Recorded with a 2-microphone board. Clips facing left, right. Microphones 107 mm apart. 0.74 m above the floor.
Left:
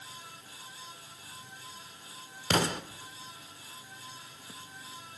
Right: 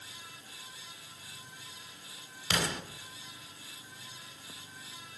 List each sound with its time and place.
2.5 s an explosion: 40° left (ahead or behind), 1.1 m